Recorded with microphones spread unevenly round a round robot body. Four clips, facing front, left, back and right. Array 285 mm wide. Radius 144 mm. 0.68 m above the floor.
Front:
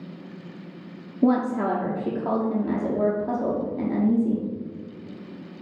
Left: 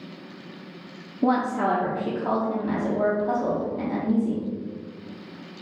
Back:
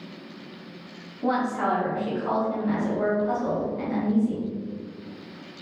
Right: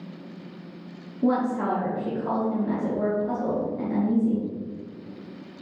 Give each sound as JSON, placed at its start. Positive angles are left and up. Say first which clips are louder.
{"t": 1.2, "sound": "a woman speaking", "louder": "left 1 dB, front 3 dB", "azimuth_deg": 20, "distance_m": 1.1}